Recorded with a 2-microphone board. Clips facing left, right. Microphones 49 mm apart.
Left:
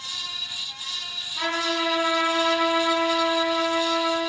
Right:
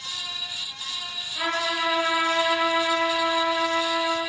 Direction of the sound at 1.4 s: 15° right (ahead or behind).